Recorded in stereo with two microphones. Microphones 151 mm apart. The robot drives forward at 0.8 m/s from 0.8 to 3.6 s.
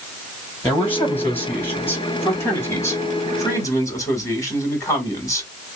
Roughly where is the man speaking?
Centre.